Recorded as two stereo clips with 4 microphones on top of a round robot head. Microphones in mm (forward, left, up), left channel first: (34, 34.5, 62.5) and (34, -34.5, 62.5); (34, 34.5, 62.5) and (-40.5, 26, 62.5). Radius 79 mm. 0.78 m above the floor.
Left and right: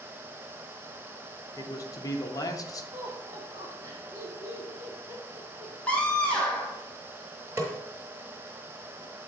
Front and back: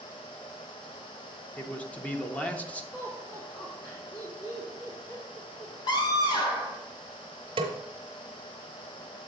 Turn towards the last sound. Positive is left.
turn(degrees=-160)